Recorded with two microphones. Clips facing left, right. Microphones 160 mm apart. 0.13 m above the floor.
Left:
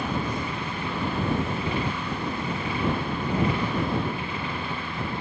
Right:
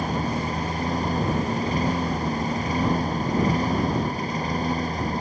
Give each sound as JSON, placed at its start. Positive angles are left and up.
{"t": 0.0, "sound": "a lawn mower", "side_deg": -40}